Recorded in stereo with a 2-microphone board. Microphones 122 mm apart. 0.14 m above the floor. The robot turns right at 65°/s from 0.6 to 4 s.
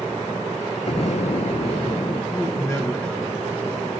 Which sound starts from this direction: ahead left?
An explosion, at 0.9 s.